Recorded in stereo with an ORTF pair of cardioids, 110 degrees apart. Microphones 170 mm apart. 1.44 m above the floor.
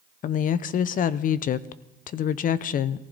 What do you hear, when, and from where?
0.2 s a woman speaking: 55° left, 0.9 m